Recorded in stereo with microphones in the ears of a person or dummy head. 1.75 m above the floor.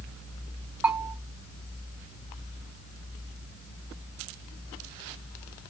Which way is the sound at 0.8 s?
5° right (ahead or behind).